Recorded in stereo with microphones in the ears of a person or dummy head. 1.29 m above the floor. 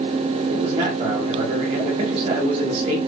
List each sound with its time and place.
0.5 s a man speaking: 30° right (ahead or behind), 1.0 m